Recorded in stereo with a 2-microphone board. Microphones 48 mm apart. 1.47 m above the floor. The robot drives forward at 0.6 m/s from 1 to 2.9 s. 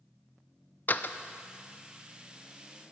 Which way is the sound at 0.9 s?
40° left (ahead or behind).